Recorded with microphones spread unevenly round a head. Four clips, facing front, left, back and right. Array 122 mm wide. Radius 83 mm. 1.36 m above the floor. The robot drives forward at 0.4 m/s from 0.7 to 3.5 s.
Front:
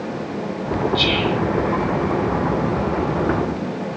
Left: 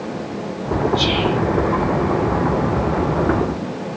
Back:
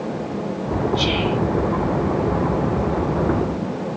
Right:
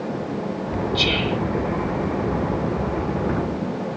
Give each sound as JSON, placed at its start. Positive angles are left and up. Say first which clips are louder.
{"t": 0.9, "sound": "whispering", "louder": "left 4 dB, front 1 dB", "azimuth_deg": -45, "distance_m": 6.5}